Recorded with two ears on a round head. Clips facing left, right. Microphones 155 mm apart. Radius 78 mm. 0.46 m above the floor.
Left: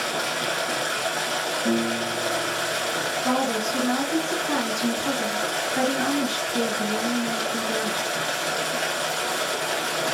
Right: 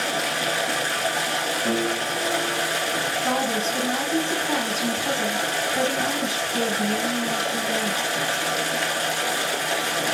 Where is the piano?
15° left (ahead or behind), 1.4 m.